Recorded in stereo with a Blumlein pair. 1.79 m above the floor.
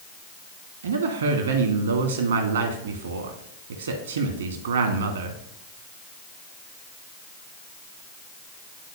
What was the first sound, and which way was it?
A woman speaking, 70° right.